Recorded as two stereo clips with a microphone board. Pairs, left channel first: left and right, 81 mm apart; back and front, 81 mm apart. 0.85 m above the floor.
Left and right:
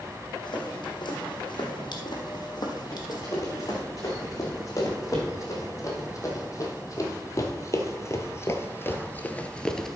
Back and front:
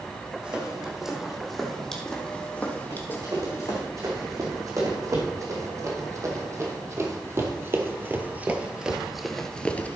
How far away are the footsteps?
About 2.5 m.